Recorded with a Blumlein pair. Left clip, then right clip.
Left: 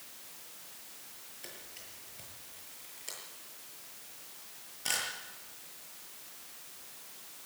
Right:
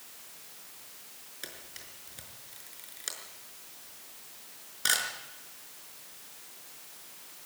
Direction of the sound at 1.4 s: 35° right.